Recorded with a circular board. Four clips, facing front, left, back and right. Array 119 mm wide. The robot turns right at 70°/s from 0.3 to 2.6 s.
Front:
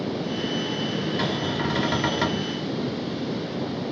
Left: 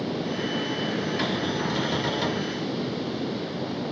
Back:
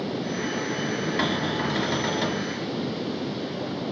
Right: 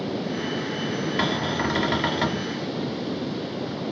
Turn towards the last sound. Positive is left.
turn(degrees=-20)